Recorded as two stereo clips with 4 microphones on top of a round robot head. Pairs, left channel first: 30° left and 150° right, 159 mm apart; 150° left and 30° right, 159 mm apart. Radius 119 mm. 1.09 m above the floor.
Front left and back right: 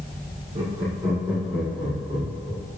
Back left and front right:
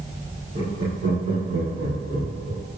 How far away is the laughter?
About 3 m.